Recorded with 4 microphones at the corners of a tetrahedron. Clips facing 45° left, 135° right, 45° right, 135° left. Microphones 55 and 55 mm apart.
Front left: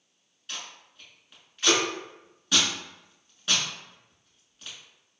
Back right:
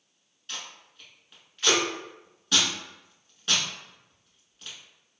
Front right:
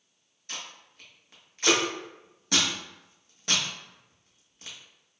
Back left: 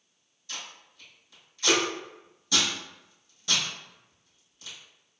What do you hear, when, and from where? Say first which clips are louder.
0.5 s tape being pulled: even, even; 40° right, 1.0 m